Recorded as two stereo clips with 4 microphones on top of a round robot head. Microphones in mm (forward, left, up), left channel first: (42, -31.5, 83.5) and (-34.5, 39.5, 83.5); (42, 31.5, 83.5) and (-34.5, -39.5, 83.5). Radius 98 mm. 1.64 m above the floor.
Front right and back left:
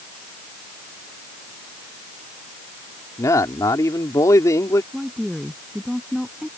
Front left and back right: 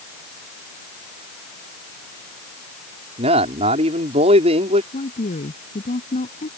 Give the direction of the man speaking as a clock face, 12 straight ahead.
4 o'clock.